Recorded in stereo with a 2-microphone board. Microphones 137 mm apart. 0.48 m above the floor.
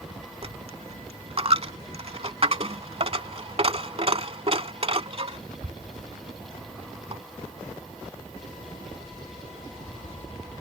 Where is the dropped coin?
45° right (ahead or behind).